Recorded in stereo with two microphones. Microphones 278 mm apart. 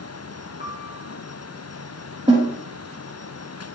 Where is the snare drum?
15° right (ahead or behind), 5.5 m.